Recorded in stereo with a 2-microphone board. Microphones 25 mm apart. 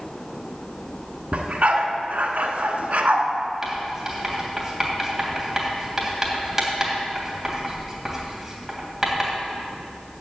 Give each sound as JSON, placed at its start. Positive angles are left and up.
{"t": 1.3, "sound": "a dog barking", "side_deg": -65, "distance_m": 1.3}
{"t": 3.6, "sound": "writing", "side_deg": -15, "distance_m": 2.5}